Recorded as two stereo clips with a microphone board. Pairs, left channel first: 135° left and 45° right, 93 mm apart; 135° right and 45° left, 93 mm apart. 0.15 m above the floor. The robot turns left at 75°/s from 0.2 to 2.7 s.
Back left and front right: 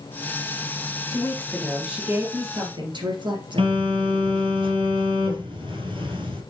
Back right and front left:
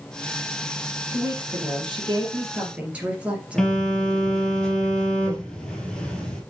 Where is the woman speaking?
90° left, 3 m; by 3.9 s 30° right, 3 m.